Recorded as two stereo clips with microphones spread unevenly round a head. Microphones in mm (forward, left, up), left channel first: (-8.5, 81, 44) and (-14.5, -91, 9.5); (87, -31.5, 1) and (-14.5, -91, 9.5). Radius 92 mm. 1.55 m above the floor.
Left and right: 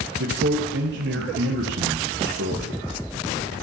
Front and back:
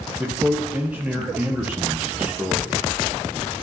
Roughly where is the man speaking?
Right.